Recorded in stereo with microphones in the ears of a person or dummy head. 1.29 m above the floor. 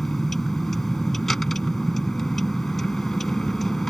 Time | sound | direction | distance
0.0 | a vehicle | 5° right (ahead or behind) | ?